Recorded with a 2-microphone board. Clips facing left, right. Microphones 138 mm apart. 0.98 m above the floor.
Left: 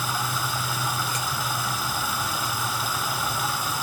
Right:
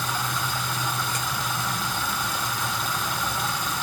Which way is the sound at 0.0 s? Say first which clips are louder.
Even; 5° left (ahead or behind).